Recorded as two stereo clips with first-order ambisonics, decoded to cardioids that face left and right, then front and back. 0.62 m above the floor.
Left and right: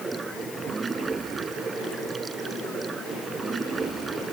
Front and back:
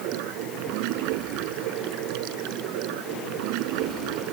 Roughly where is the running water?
Behind.